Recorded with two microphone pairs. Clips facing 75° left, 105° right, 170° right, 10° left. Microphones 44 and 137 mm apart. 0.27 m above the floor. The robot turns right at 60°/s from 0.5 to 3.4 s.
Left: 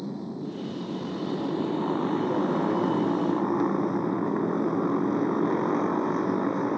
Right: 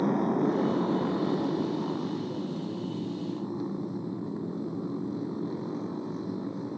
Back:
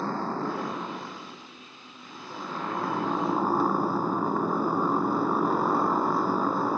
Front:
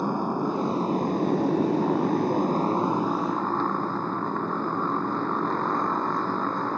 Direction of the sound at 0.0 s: 70° right.